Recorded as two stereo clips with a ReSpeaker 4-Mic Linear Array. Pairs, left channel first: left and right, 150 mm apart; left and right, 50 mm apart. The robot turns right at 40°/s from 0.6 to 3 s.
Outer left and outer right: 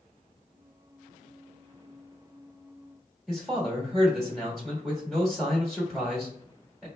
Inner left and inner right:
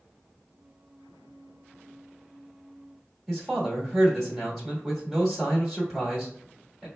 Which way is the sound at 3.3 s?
Centre (ahead or behind).